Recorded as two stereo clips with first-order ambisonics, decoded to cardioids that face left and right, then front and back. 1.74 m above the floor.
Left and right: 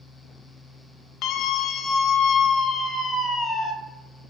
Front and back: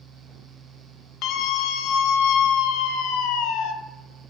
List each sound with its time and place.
1.2 s a scream: 40° left, 1.9 m; by 3.7 s 5° left, 3 m